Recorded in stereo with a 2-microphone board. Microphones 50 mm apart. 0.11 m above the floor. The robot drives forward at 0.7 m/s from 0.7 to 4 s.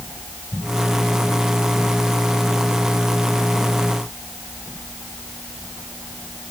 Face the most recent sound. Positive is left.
No sound to turn to.